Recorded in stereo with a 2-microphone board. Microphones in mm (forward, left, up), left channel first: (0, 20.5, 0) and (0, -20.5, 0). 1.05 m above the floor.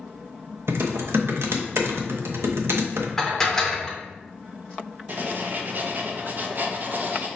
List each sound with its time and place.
0.7 s typing on a keyboard: 75° right (ahead or behind), 0.5 m
3.2 s dishes clattering: 10° left (ahead or behind), 0.6 m
5.1 s writing: 45° right (ahead or behind), 0.5 m